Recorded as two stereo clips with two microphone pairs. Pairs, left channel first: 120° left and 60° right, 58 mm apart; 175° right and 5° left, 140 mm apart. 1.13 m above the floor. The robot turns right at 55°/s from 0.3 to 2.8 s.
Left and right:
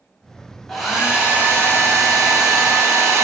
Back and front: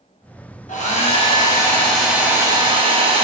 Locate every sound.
0.7 s a hair dryer: 155° right, 0.7 m; by 3.2 s 40° right, 0.7 m